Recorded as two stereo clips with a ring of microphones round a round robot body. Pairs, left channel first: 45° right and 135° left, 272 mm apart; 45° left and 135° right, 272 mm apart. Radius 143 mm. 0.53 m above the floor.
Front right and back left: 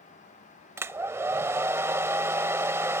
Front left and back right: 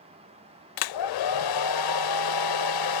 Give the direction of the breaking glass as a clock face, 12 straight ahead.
No breaking glass in this recording.